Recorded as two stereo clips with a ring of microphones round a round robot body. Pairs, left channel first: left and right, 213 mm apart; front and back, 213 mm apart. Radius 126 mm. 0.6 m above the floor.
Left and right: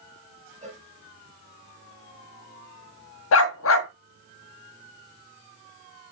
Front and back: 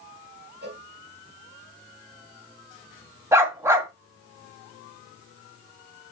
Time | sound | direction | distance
0.6 | a cowbell | 145° right | 4.5 m
3.3 | a dog barking | 100° left | 1.5 m